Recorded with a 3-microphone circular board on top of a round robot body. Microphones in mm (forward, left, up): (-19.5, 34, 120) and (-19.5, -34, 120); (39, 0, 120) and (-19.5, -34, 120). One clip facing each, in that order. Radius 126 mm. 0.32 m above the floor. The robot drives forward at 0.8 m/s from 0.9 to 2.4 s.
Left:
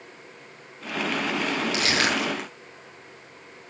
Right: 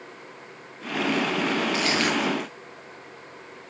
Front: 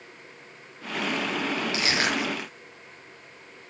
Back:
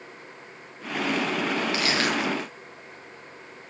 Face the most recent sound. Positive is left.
turn(degrees=100)